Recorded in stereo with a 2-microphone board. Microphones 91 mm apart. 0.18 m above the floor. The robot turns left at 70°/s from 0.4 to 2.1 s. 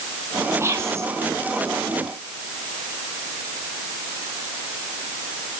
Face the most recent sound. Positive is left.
turn(degrees=-165)